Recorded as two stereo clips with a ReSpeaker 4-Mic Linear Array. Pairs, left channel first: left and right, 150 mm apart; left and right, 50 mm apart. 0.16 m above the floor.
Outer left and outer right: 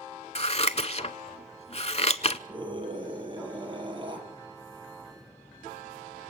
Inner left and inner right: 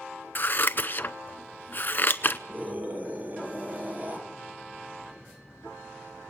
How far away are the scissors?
About 0.7 m.